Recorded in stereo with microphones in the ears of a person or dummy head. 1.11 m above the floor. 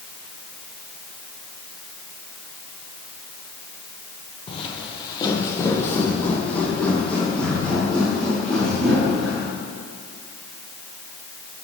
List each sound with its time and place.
4.5 s footsteps: 30° left (ahead or behind), 1.7 m; by 9.5 s 5° left (ahead or behind), 5.5 m